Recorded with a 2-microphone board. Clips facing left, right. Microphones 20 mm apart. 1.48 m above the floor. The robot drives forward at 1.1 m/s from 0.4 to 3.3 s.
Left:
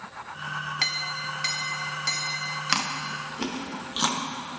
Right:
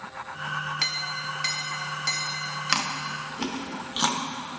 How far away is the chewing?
About 0.6 m.